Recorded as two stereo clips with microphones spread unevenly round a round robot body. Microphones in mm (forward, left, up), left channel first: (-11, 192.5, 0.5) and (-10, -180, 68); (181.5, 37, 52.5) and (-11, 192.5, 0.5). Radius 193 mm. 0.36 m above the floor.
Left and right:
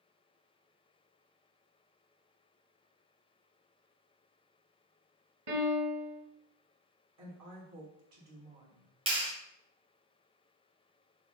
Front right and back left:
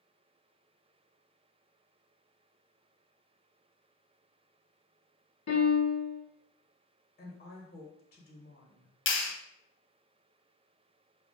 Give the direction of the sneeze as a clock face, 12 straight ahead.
No sneeze in this recording.